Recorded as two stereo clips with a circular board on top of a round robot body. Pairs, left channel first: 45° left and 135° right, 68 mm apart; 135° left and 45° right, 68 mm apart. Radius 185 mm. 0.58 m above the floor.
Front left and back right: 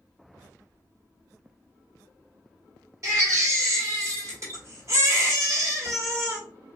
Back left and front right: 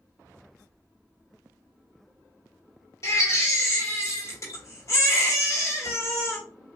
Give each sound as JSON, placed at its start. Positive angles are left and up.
{"t": 3.0, "sound": "a baby crying", "azimuth_deg": 180, "distance_m": 1.5}